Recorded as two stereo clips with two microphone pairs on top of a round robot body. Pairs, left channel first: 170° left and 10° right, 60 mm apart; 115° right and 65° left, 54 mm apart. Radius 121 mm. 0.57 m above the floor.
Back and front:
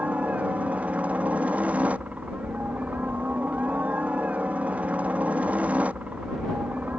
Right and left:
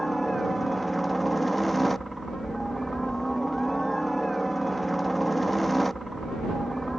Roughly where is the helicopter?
Ahead right.